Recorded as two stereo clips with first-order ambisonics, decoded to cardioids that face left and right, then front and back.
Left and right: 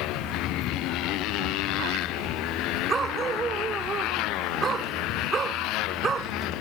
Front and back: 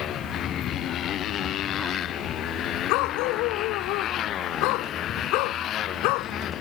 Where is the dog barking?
20° right.